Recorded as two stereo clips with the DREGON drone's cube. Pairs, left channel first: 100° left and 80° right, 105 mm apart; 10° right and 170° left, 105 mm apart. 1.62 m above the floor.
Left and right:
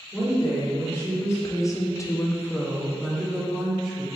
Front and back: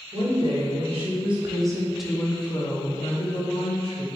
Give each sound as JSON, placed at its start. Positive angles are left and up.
{"t": 0.1, "sound": "a woman speaking", "azimuth_deg": 170, "distance_m": 1.7}